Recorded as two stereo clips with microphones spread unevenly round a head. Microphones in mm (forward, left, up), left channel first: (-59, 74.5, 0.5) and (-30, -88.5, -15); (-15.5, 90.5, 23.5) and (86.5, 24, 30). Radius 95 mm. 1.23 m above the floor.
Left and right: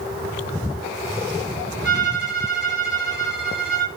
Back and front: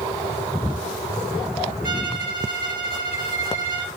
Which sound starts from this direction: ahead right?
A violin, at 1.8 s.